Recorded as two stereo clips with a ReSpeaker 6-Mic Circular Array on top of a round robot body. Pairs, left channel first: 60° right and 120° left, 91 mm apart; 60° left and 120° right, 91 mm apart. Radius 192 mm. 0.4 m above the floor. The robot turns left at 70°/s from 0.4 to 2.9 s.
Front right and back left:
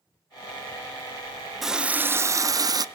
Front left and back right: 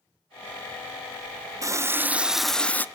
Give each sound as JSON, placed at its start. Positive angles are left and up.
{"t": 1.6, "sound": "a running tap", "azimuth_deg": -150, "distance_m": 0.6}